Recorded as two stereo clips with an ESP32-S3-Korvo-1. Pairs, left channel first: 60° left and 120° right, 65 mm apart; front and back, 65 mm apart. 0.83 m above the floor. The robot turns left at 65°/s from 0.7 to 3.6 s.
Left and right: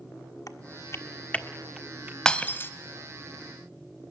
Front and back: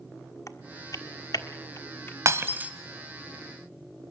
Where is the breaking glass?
140° left, 1.6 m; by 2.7 s 110° left, 1.6 m.